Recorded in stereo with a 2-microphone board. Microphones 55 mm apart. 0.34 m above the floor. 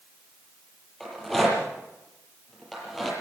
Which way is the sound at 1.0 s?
5° left (ahead or behind).